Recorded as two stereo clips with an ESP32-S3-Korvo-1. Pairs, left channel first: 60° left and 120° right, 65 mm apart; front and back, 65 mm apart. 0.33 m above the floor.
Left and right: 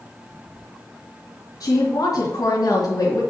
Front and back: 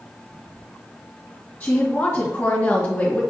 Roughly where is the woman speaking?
Ahead left.